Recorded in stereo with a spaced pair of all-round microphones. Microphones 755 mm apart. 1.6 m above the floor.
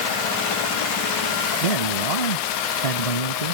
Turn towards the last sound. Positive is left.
turn(degrees=50)  # may be behind; listen again after turning